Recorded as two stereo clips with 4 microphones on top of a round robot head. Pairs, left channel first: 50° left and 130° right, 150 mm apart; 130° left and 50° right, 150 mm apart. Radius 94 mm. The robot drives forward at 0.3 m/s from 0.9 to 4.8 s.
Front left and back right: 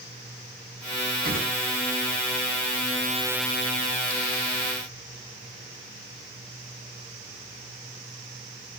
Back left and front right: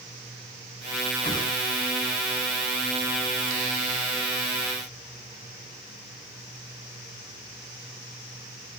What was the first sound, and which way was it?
A whoosh, 165° right.